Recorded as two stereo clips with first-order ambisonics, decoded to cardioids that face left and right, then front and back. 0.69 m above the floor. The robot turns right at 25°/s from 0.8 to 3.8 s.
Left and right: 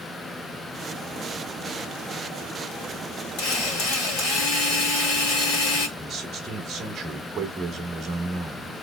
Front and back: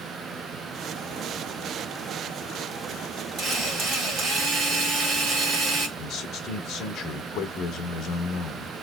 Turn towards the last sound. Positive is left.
turn(degrees=-25)